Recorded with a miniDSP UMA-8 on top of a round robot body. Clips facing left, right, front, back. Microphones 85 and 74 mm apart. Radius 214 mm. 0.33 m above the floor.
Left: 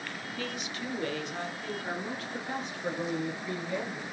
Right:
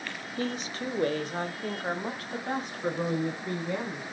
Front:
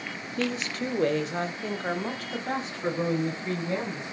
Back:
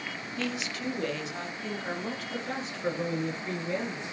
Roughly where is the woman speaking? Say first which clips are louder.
Right 6 dB, front 5 dB; ahead right.